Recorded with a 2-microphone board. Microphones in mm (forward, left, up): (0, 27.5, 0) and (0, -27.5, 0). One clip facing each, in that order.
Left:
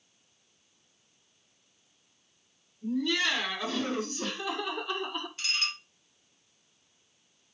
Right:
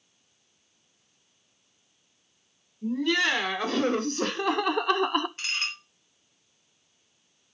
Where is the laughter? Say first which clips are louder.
Right 4 dB; 55° right (ahead or behind), 2.5 m; by 5.3 s 60° right (ahead or behind), 0.5 m.